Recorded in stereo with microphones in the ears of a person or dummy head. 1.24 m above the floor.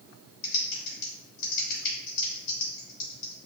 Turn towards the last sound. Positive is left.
turn(degrees=45)  # may be behind; listen again after turning